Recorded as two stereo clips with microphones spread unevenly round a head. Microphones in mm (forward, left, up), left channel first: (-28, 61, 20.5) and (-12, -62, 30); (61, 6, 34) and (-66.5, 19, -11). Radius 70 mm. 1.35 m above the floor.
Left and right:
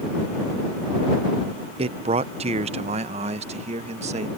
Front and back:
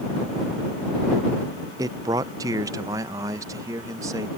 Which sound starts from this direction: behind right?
A man speaking, at 1.8 s.